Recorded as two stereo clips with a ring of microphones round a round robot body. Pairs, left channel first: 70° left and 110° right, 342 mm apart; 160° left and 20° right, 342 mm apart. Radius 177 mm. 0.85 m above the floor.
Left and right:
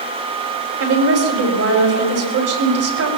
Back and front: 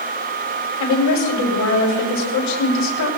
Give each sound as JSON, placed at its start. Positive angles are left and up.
{"t": 0.8, "sound": "a woman speaking", "azimuth_deg": -160, "distance_m": 4.5}